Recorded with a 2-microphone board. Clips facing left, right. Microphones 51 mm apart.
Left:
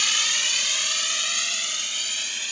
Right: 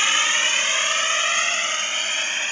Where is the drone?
30° right (ahead or behind); by 2.5 s 35° right (ahead or behind).